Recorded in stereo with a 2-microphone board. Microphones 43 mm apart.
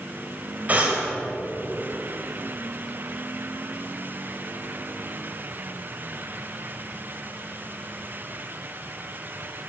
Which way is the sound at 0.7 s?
35° right (ahead or behind).